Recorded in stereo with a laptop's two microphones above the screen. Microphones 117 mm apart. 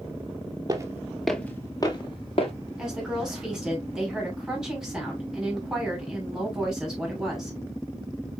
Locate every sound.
0.7 s footsteps: 35° right (ahead or behind), 1.0 m; by 2.5 s 55° left (ahead or behind), 1.5 m
2.8 s a woman speaking: 5° right (ahead or behind), 3 m